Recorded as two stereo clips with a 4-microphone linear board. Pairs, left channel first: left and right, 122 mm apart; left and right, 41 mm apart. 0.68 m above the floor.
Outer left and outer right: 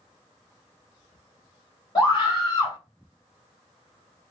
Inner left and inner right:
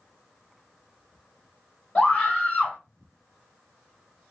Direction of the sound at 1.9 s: 35° left (ahead or behind).